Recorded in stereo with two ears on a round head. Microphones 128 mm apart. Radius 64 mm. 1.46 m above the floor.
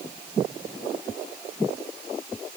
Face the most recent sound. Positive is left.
No sound to turn to.